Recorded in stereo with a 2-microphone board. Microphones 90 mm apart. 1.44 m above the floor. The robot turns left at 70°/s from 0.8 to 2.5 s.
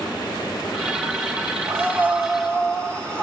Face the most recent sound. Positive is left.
turn(degrees=165)